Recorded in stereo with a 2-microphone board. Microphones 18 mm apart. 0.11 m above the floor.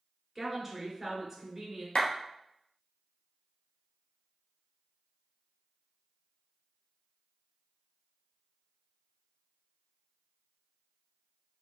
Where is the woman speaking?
10° right (ahead or behind), 1.8 m.